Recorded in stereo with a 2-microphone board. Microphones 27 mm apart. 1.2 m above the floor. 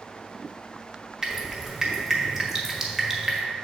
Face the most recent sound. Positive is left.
turn(degrees=-20)  # may be behind; listen again after turning